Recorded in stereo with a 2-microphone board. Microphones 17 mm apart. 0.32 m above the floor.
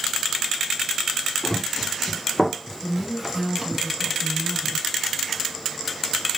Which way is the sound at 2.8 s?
10° right (ahead or behind).